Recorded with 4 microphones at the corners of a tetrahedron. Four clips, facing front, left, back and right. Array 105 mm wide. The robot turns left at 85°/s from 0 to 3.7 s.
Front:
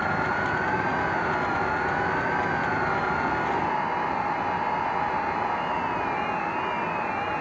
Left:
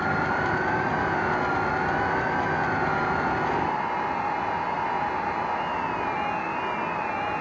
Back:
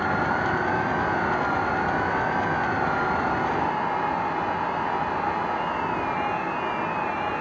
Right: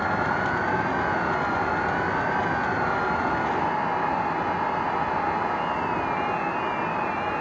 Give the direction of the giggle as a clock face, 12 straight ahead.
I don't hear a giggle.